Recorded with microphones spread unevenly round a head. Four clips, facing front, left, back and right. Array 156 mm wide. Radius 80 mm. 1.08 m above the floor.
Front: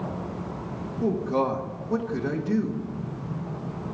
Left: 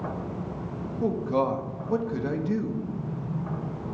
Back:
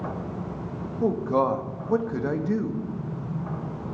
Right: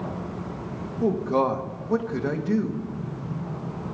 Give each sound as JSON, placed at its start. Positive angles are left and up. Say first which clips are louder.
{"t": 1.0, "sound": "a man speaking", "louder": "right 3 dB, back 2 dB", "azimuth_deg": -140, "distance_m": 1.8}